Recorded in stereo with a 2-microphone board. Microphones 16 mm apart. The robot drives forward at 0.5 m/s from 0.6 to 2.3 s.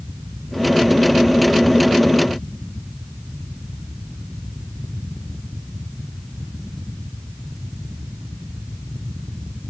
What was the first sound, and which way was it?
Only background noise.